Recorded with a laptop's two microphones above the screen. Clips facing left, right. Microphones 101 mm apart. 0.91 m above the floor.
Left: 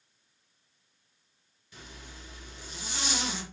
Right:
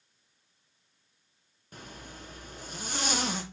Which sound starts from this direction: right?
A zipper, at 1.7 s.